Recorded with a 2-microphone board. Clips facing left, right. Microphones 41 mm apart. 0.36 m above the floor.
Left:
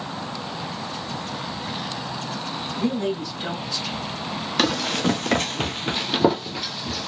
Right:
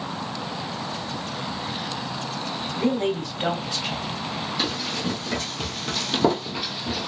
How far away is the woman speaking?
About 3 m.